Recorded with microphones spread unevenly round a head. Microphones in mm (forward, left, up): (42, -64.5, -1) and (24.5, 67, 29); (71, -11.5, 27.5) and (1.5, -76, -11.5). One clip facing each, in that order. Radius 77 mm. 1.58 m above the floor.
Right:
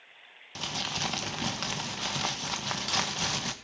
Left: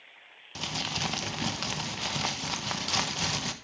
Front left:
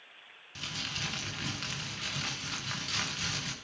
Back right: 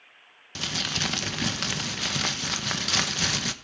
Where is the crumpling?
Straight behind, 1.1 m.